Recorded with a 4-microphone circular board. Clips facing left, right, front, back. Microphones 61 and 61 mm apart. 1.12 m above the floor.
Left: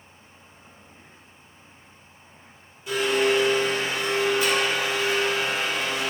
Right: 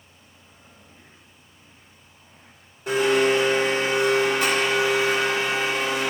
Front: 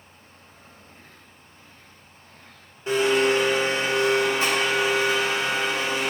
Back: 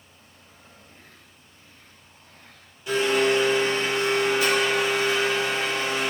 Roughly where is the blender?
Ahead right.